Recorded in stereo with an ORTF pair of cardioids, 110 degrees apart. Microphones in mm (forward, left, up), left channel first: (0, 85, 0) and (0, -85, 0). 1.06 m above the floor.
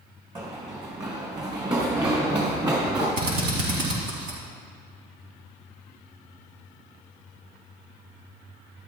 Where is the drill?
70° right, 4.5 m.